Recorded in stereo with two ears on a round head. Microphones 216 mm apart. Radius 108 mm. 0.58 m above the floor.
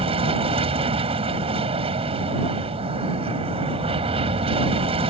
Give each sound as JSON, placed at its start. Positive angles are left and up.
{"t": 0.0, "sound": "an aircraft", "side_deg": -25}